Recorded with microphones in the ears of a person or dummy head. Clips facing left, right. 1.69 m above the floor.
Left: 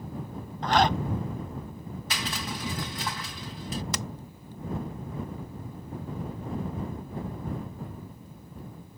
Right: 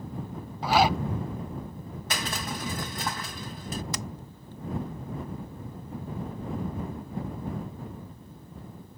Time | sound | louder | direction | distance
0.6 | a zipper | right 1 dB | 10° right (ahead or behind) | ?
2.1 | crushing | right 2 dB | 45° right (ahead or behind) | ?
3.9 | hammering | left 1 dB | 60° left (ahead or behind) | ?